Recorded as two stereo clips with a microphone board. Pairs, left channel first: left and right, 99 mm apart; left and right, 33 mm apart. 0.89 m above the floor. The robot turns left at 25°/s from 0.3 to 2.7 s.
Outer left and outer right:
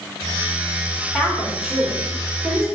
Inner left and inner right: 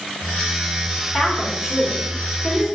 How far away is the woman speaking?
About 2.5 m.